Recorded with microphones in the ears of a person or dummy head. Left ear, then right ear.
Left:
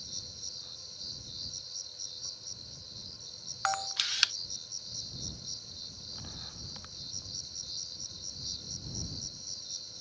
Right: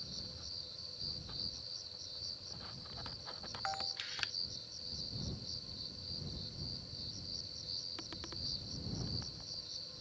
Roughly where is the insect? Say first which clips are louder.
Left 4 dB; left.